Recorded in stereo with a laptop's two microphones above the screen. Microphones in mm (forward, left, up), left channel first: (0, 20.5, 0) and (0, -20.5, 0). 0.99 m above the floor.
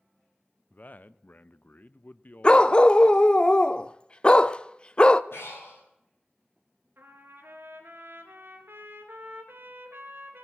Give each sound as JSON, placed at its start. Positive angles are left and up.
{"t": 0.7, "sound": "a man speaking", "side_deg": 45, "distance_m": 0.5}
{"t": 2.4, "sound": "a dog barking", "side_deg": 25, "distance_m": 0.5}
{"t": 5.3, "sound": "breathing", "side_deg": 80, "distance_m": 6.0}
{"t": 7.0, "sound": "a trumpet", "side_deg": -70, "distance_m": 2.5}